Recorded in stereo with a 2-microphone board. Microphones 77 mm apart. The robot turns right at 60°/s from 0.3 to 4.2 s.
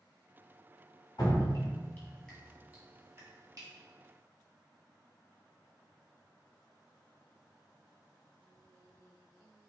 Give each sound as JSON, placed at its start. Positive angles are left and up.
{"t": 1.2, "sound": "dripping", "side_deg": 55, "distance_m": 1.7}